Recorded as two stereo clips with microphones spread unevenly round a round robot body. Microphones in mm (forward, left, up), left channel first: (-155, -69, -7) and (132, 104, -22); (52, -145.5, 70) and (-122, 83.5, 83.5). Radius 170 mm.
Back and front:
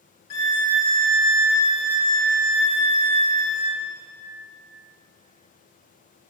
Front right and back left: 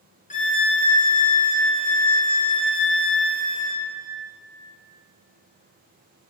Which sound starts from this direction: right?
A violin, at 0.3 s.